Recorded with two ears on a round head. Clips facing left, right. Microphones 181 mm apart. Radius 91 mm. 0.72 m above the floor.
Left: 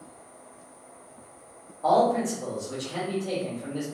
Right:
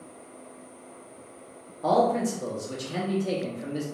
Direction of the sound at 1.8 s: 35° right (ahead or behind).